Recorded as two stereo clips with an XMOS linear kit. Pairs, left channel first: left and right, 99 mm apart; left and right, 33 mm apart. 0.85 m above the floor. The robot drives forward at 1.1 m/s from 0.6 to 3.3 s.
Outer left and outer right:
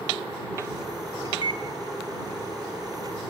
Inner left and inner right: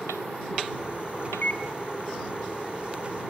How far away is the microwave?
About 1.4 m.